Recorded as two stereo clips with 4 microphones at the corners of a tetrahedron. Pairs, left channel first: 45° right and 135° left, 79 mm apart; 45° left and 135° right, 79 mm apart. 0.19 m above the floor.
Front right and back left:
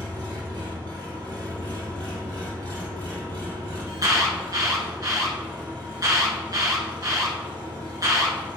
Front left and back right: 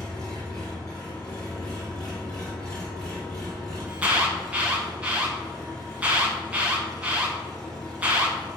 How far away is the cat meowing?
No cat meowing in this recording.